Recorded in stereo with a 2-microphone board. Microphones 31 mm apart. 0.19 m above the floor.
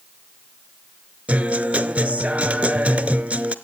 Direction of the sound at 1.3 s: 45° right (ahead or behind).